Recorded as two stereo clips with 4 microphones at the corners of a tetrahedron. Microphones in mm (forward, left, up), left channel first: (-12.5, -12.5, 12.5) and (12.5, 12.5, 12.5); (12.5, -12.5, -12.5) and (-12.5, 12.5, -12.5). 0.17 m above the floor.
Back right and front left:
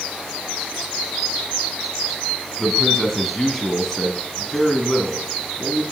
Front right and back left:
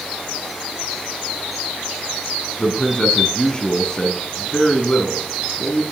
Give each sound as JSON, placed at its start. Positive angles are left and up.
{"t": 2.6, "sound": "a man speaking", "azimuth_deg": -60, "distance_m": 1.1}